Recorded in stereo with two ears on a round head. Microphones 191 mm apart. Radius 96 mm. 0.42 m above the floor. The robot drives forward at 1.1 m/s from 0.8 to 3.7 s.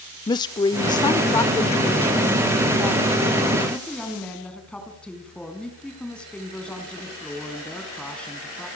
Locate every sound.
0.3 s a woman speaking: 20° left (ahead or behind), 0.8 m; by 8.7 s 5° left (ahead or behind), 3 m